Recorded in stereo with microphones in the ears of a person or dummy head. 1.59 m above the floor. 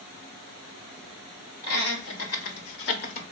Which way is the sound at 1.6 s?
70° left (ahead or behind).